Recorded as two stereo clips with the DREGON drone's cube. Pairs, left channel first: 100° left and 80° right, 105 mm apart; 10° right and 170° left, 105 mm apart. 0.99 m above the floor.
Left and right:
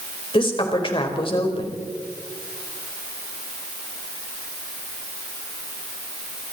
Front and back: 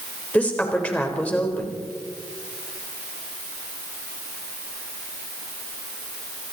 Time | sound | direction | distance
0.3 | a woman speaking | 65° left | 4 m